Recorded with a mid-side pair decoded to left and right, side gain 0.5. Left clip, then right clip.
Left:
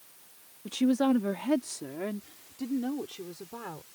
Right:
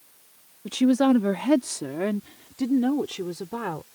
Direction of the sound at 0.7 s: 35° right.